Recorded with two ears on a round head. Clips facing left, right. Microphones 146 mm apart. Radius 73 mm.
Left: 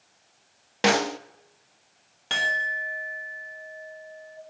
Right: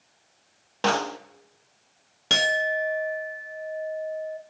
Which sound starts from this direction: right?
A clink, at 2.3 s.